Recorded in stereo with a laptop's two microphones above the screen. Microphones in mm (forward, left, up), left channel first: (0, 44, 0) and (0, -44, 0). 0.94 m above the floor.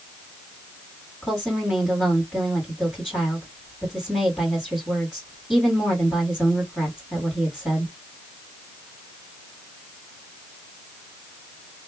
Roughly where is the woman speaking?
Centre.